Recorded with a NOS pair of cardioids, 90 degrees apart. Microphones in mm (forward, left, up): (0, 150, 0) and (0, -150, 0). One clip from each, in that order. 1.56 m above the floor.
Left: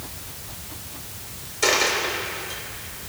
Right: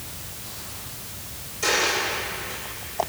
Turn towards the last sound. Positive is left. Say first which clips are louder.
# left 2 dB
turn(degrees=50)